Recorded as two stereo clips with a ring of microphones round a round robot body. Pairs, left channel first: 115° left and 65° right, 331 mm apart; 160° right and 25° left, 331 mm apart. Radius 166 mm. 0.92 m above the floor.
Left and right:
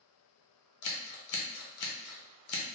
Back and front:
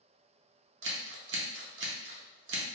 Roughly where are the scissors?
Left.